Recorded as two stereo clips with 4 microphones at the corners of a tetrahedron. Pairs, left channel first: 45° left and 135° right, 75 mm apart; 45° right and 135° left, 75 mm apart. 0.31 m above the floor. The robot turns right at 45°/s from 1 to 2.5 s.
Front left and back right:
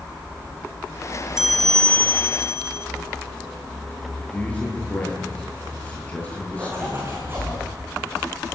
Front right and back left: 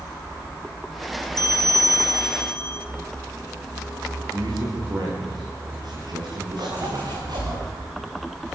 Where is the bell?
50° right, 1.6 m; by 2.9 s straight ahead, 1.6 m.